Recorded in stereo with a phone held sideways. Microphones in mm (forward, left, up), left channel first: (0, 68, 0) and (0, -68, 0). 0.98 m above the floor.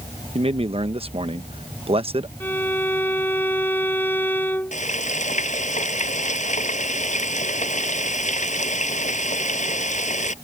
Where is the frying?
65° left (ahead or behind).